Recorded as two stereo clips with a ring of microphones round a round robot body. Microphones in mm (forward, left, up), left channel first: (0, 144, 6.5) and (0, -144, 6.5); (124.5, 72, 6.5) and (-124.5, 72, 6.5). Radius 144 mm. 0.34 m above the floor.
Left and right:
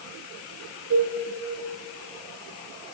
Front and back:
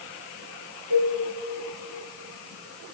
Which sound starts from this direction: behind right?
A cowbell, at 0.9 s.